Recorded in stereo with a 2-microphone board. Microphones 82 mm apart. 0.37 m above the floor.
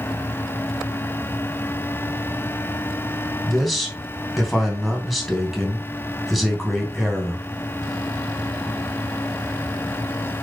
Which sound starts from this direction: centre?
A man speaking, at 3.5 s.